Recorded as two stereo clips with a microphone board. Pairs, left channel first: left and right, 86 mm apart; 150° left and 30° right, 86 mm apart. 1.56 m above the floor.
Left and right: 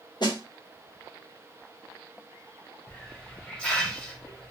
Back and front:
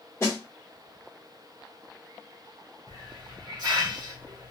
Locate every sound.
0.2 s a snare drum: 95° left, 1.3 m
2.9 s a hiss: 10° left, 1.0 m